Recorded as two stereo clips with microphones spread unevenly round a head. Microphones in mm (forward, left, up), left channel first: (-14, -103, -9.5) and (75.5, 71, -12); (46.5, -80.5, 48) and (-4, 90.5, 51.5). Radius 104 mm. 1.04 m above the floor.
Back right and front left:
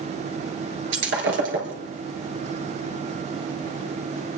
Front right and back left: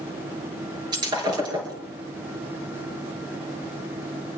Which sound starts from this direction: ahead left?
Breaking glass, at 0.9 s.